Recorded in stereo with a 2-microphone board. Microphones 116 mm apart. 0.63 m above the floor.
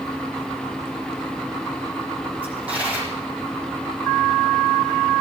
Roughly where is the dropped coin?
Centre.